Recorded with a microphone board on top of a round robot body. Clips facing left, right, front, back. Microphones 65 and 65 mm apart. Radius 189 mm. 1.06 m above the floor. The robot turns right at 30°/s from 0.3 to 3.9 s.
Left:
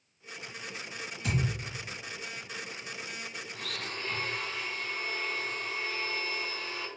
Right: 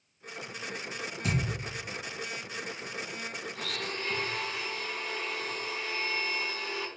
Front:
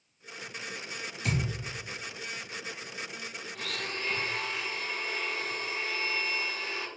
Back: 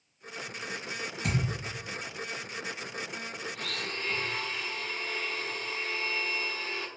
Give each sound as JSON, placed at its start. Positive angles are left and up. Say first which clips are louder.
{"t": 1.2, "sound": "a thud", "louder": "right 1 dB, even", "azimuth_deg": -145, "distance_m": 1.5}
{"t": 3.5, "sound": "a blender", "louder": "right 1 dB, front 4 dB", "azimuth_deg": -90, "distance_m": 0.9}